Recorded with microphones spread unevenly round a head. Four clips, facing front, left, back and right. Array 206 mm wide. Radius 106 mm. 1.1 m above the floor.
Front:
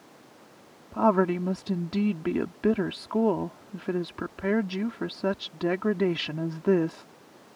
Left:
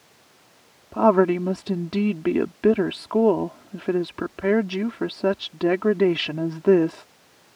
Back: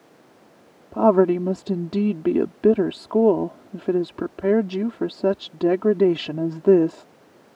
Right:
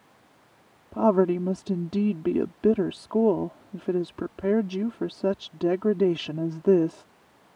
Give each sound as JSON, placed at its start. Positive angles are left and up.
{"t": 0.9, "sound": "a woman speaking", "azimuth_deg": 165}